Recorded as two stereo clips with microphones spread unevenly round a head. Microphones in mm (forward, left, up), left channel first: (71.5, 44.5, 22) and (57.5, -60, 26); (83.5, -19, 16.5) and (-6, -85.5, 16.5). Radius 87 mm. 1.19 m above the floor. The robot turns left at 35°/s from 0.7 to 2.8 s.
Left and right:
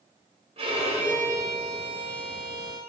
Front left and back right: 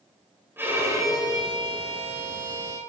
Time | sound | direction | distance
0.6 | a violin | 75° right | 4 m